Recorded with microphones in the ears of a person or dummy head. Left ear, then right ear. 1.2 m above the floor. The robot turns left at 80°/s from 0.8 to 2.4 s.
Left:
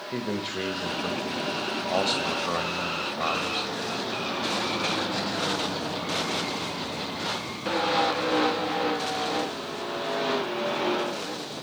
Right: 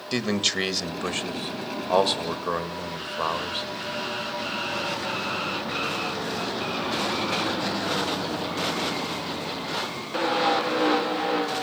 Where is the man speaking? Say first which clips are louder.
Right 7 dB; 50° right (ahead or behind), 2 m; by 3.7 s centre (ahead or behind), 2 m.